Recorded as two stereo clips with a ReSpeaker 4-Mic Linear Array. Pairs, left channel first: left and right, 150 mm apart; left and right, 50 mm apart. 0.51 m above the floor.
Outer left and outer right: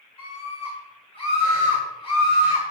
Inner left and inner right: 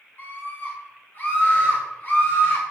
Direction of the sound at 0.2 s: 40° left (ahead or behind).